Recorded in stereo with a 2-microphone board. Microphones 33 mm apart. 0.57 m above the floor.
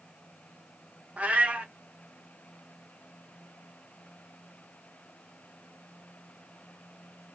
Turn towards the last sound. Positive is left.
turn(degrees=-45)  # may be behind; listen again after turning